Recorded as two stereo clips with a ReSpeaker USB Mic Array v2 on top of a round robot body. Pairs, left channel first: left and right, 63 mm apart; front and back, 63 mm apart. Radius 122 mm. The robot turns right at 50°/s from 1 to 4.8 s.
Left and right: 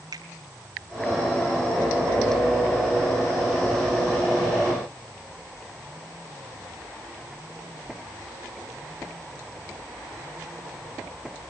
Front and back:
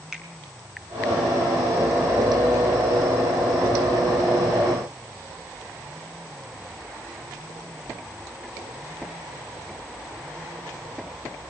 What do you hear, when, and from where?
0.1 s a finger snap: 95° right, 4 m